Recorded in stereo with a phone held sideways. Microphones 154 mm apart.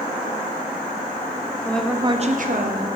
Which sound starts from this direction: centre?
A woman speaking, at 1.6 s.